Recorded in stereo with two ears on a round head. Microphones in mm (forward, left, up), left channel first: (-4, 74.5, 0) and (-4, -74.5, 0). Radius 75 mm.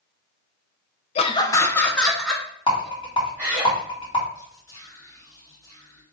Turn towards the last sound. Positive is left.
turn(degrees=20)  # may be behind; listen again after turning